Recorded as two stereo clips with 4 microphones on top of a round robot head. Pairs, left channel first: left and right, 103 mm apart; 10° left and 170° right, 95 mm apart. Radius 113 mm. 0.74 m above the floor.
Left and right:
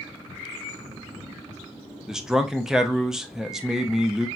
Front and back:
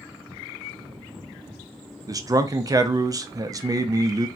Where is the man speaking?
170° right, 0.5 m.